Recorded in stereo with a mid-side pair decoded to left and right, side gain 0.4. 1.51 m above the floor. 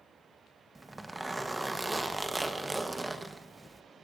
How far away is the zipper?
About 1.2 m.